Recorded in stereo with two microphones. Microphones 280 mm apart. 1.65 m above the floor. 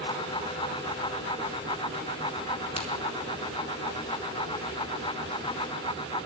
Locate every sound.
2.8 s a crack: 20° left (ahead or behind), 2.5 m